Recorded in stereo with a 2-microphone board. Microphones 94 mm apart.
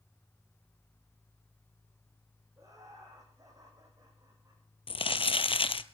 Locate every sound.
2.6 s laughter: 35° right (ahead or behind), 5.5 m
4.9 s crumpling: 65° left (ahead or behind), 0.6 m